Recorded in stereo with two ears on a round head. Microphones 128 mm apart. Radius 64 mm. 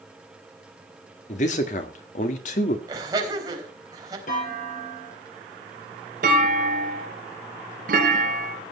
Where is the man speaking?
55° left (ahead or behind), 1.7 m.